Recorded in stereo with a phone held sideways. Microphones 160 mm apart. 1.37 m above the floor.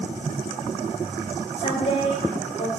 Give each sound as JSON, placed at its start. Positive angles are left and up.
{"t": 1.6, "sound": "a woman speaking", "side_deg": 35, "distance_m": 4.0}